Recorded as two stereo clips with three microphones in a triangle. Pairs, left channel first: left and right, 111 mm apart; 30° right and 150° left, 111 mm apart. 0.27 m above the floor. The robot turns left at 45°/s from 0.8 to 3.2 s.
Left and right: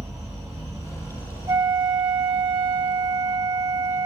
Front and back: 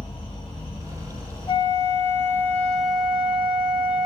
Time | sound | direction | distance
0.0 | an insect | 35° right | 1.5 m
1.5 | a flute | 60° right | 0.6 m